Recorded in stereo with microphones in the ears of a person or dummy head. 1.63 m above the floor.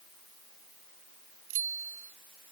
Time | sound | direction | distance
1.5 | a bicycle bell | 45° right (ahead or behind) | ?